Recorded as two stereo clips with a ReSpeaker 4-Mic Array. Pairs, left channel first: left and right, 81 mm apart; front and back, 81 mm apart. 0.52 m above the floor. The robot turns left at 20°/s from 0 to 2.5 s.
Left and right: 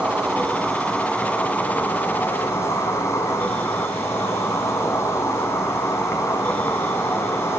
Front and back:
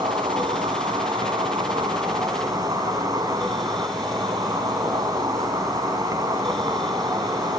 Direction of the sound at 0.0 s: 165° right.